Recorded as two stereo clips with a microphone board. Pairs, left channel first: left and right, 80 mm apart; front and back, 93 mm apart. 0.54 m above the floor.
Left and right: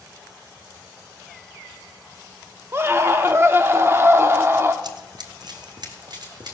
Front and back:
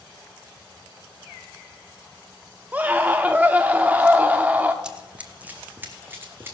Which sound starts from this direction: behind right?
A scream, at 2.7 s.